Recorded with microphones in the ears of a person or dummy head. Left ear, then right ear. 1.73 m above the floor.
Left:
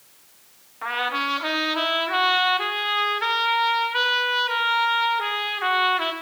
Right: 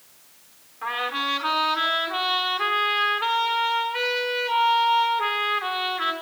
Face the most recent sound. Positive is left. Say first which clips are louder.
# left 1 dB
turn(degrees=15)  # may be behind; listen again after turning